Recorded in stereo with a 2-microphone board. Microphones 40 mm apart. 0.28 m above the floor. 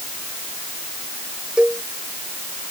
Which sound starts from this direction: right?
A cowbell, at 1.6 s.